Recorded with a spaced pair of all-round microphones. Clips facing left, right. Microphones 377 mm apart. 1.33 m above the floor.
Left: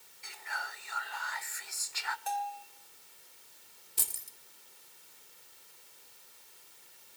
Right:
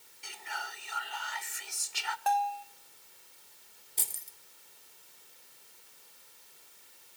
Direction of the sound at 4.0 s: 20° left (ahead or behind).